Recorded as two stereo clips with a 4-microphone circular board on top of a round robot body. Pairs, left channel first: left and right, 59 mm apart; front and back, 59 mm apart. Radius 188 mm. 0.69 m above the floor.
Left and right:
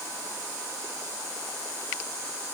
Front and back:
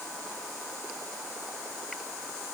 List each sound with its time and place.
Only background noise.